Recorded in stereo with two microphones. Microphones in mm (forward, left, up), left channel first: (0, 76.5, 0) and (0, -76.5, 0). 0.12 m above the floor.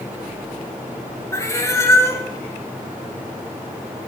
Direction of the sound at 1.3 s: 20° left (ahead or behind).